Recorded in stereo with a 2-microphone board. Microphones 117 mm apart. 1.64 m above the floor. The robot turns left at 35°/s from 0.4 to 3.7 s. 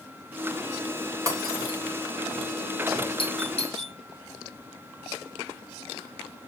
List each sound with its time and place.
1.3 s breaking glass: 30° right (ahead or behind), 5.5 m; by 1.8 s 50° right (ahead or behind), 5.5 m
3.2 s a doorbell: 50° left (ahead or behind), 1.3 m; by 4.0 s 65° left (ahead or behind), 1.3 m